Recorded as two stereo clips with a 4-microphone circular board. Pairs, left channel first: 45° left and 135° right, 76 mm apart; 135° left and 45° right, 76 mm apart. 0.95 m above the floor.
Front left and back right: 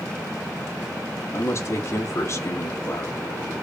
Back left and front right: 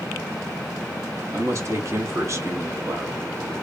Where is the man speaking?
Straight ahead, 1.5 m.